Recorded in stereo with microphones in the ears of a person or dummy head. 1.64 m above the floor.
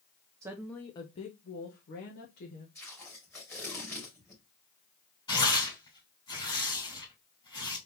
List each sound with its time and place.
0.4 s a woman speaking: 20° right (ahead or behind), 0.5 m; by 2.6 s 65° left (ahead or behind), 1.5 m
2.8 s tape being pulled: 10° left (ahead or behind), 2.5 m
5.3 s tearing paper: 25° left (ahead or behind), 3.5 m